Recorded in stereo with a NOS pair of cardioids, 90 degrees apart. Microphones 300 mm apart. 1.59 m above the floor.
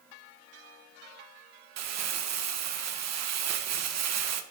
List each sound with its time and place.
1.8 s crumpling: 65° right, 1.4 m